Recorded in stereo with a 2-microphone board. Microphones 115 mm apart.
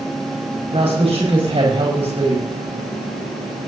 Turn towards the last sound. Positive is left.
turn(degrees=-65)  # may be behind; listen again after turning